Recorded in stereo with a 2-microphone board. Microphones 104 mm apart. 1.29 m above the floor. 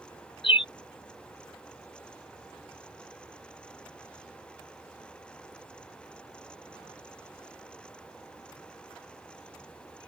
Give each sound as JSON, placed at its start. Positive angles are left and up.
{"t": 0.4, "sound": "a bird", "side_deg": 55}